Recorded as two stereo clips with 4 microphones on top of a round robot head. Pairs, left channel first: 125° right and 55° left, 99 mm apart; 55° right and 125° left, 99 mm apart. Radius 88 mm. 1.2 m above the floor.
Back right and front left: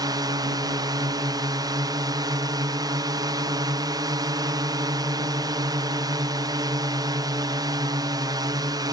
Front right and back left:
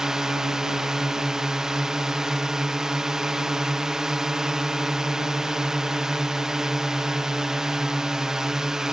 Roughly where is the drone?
Ahead left.